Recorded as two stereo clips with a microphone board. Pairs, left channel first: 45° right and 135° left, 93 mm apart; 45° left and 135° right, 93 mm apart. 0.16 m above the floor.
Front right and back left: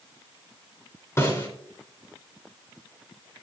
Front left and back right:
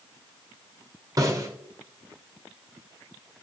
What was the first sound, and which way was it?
A snare drum, 100° right.